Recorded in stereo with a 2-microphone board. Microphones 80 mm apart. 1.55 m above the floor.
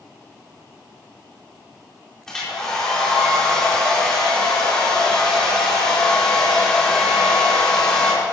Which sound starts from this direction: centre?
A hair dryer, at 2.3 s.